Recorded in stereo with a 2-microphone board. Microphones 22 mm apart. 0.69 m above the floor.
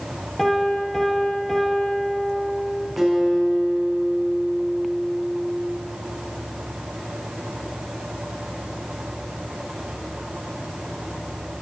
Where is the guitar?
5° right (ahead or behind), 6.5 m.